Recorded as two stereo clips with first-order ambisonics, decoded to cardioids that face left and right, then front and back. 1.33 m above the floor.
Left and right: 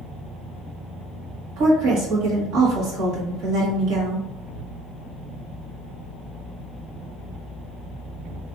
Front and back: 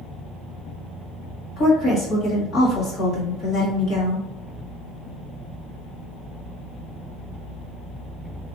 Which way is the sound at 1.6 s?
55° right.